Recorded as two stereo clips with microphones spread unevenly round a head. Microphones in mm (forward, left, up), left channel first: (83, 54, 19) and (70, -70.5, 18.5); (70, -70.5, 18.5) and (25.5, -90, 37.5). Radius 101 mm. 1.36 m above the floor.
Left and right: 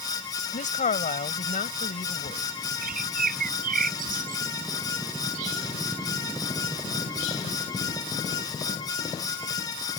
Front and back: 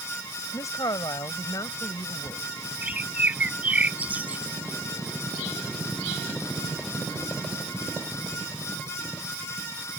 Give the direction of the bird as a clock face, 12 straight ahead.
3 o'clock.